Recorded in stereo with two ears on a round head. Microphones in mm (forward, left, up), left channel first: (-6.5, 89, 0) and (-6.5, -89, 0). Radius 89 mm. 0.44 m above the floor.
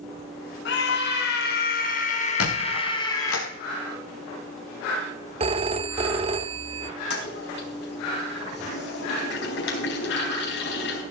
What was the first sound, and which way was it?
A scream, 65° left (ahead or behind).